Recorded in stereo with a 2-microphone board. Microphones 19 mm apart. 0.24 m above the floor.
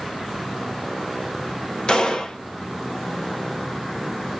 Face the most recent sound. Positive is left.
turn(degrees=50)  # may be behind; listen again after turning